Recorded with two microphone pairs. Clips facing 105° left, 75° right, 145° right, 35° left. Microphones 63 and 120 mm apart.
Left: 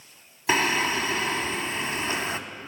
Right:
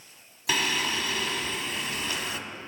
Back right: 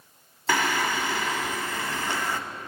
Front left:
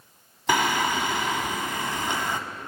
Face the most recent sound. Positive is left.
turn(degrees=90)